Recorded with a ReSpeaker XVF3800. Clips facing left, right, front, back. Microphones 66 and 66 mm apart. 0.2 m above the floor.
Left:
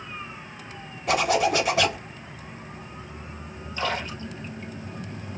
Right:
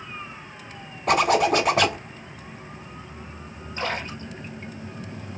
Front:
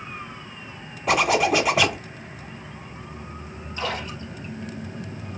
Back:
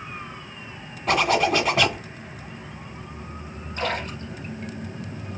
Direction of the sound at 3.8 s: 140° right.